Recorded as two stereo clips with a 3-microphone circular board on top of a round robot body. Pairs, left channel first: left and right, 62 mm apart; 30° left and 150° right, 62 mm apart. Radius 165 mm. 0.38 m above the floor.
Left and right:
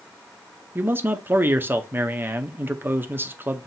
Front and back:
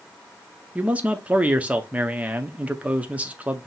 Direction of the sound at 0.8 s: 100° right.